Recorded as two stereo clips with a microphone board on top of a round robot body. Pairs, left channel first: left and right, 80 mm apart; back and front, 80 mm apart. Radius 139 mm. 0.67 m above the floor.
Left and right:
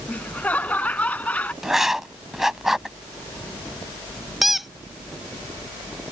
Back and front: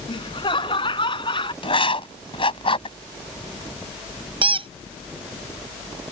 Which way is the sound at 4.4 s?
Straight ahead.